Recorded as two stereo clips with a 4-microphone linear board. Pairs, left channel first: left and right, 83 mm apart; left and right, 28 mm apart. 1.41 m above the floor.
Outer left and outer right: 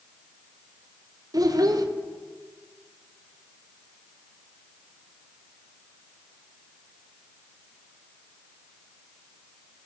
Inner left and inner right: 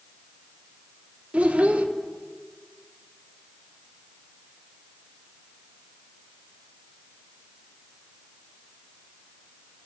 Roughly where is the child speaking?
Right.